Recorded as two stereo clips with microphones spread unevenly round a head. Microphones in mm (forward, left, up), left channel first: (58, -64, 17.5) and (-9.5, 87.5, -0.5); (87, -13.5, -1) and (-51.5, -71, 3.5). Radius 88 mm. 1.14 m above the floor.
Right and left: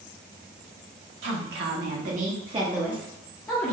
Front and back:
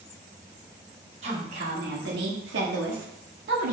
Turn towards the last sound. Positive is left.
turn(degrees=-135)